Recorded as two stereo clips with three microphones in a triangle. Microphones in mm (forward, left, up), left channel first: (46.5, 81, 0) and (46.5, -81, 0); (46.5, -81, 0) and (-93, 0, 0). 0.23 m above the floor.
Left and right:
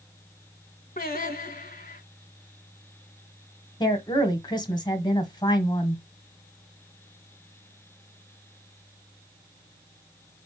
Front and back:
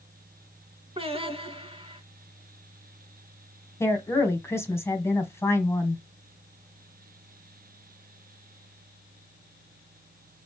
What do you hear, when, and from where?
1.0 s singing: 100° left, 1.1 m
3.8 s a woman speaking: 35° left, 1.4 m